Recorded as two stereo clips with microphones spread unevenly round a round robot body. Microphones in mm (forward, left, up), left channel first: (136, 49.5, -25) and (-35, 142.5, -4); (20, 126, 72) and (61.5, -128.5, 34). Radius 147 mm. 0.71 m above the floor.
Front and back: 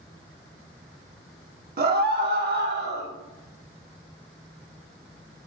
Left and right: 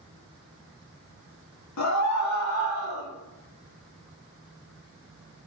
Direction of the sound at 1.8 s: 115° left.